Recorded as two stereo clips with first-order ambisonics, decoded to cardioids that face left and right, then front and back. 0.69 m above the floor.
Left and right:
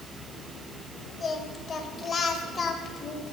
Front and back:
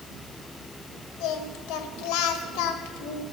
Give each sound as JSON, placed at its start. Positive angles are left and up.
{"t": 1.2, "sound": "singing", "azimuth_deg": 20, "distance_m": 1.3}